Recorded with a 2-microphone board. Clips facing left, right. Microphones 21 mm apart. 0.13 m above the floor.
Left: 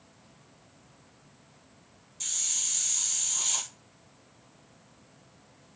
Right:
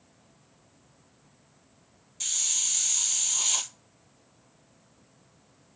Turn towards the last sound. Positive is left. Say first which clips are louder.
# right 3 dB
turn(degrees=-20)  # may be behind; listen again after turning